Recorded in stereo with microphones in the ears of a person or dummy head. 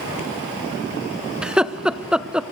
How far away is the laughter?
About 0.8 m.